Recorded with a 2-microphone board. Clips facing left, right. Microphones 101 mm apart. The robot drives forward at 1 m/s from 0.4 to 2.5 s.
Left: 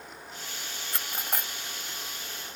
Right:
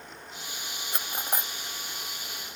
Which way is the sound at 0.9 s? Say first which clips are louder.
Right 2 dB; 20° right (ahead or behind).